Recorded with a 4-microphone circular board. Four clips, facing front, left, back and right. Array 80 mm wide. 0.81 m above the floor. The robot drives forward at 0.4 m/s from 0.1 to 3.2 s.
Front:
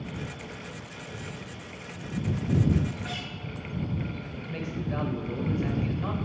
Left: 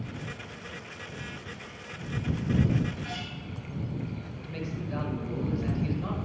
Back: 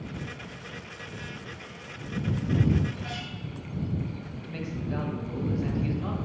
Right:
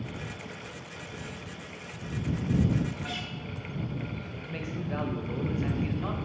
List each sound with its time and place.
3.0 s a guitar: 75° right, 1.1 m; by 3.3 s 80° right, 1.1 m
4.3 s a man speaking: 80° right, 0.9 m